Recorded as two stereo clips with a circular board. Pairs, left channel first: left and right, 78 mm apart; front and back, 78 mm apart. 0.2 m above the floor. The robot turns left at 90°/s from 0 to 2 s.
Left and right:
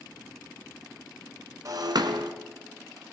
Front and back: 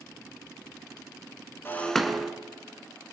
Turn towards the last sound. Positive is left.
turn(degrees=-90)